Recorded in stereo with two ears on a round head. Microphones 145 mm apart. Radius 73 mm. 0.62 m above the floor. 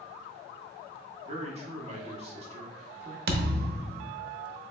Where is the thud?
65° right (ahead or behind), 0.7 m.